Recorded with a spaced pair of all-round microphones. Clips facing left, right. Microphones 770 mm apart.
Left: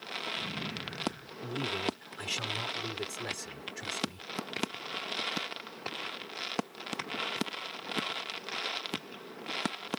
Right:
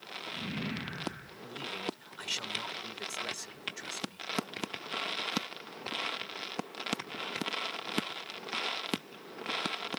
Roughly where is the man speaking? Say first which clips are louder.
Left 6 dB; left.